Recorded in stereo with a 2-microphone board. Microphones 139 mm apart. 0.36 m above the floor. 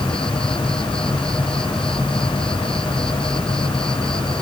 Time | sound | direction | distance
0.0 | an insect | 5° left (ahead or behind) | ?